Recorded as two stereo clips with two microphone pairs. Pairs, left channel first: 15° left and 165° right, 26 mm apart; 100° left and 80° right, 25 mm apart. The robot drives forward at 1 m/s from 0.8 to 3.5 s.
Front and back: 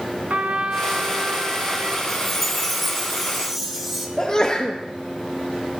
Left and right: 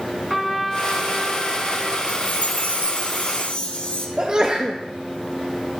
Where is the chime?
90° left, 3 m; by 4.1 s 115° left, 3.5 m.